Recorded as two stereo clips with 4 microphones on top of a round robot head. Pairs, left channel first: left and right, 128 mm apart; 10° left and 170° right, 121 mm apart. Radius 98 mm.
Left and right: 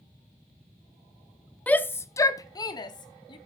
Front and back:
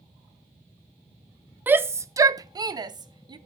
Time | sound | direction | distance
1.7 | a shout | 145° left | 0.8 m